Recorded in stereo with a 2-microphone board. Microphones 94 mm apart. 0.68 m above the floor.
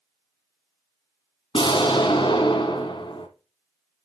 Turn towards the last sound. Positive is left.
turn(degrees=65)  # may be behind; listen again after turning